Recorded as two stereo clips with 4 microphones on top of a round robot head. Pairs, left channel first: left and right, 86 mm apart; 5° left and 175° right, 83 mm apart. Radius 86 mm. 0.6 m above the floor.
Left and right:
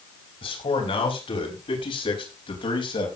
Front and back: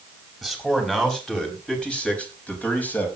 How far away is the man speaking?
About 5.5 m.